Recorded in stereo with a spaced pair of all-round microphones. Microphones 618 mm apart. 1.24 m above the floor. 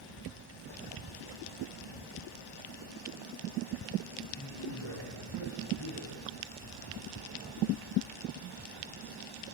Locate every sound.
4.4 s a man speaking: 75° left (ahead or behind), 8 m